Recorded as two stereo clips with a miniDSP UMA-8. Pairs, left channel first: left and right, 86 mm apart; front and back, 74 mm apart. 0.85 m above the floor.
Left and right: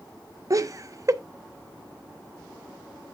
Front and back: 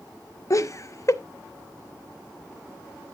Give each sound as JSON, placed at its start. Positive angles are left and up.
{"t": 0.5, "sound": "laughter", "azimuth_deg": -45, "distance_m": 0.8}